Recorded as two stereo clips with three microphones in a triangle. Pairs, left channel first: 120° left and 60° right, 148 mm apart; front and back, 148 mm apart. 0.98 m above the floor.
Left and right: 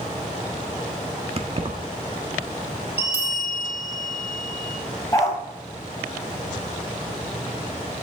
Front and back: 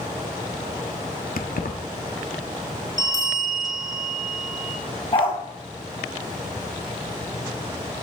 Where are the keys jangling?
10° right, 1.2 m.